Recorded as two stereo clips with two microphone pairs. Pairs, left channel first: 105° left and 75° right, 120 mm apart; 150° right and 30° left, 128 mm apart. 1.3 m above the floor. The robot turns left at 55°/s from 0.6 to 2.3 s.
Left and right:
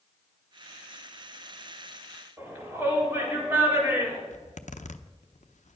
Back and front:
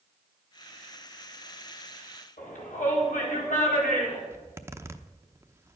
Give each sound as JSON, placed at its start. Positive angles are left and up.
{"t": 2.4, "sound": "a shout", "azimuth_deg": -150, "distance_m": 4.5}
{"t": 4.3, "sound": "a zipper", "azimuth_deg": 100, "distance_m": 0.8}